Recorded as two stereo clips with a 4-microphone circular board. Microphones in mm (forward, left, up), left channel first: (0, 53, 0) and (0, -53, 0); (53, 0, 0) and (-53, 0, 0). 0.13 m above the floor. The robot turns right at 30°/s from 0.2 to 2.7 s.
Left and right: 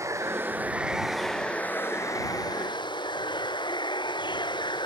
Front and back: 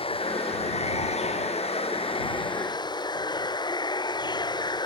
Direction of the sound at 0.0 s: 30° right.